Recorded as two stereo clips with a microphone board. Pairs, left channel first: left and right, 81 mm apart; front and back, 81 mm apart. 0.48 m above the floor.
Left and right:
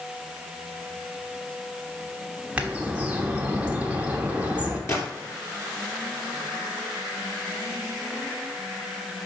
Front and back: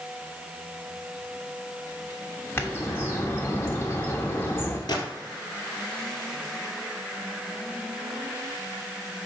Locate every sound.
2.6 s a bird: 35° right, 1.2 m
4.9 s a gunshot: 35° left, 2 m